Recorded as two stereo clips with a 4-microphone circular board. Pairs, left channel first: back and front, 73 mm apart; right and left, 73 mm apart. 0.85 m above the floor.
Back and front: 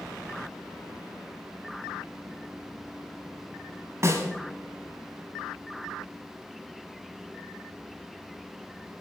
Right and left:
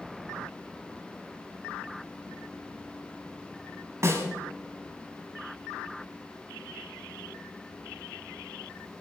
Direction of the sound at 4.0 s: 45° left.